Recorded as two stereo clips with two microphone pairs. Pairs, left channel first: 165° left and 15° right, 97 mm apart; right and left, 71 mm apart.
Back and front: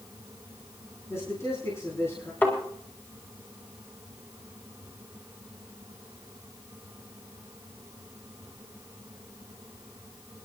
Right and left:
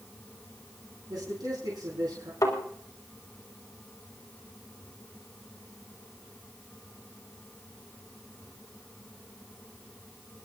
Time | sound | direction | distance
1.1 | a man speaking | 105° left | 4.5 m
2.4 | a thud | 125° right | 3.5 m